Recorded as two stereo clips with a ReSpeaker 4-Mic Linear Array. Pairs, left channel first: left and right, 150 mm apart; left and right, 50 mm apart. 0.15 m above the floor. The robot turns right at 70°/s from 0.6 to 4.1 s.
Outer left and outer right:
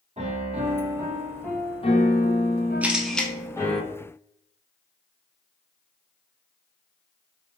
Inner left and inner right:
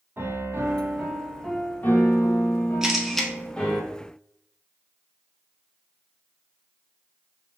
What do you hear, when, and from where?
0.2 s a piano: 45° right, 0.7 m; by 3.8 s 175° left, 0.7 m
2.8 s a camera shutter: 10° right (ahead or behind), 0.6 m; by 3.3 s 10° left (ahead or behind), 0.6 m